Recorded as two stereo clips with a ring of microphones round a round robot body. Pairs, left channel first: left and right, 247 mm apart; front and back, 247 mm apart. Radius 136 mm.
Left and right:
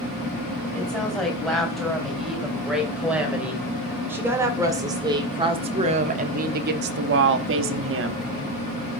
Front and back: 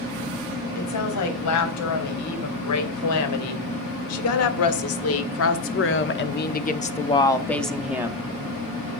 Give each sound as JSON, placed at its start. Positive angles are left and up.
{"t": 0.8, "sound": "a woman speaking", "azimuth_deg": 0, "distance_m": 4.0}